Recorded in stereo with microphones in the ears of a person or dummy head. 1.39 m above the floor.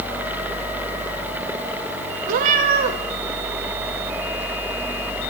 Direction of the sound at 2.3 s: 50° right (ahead or behind).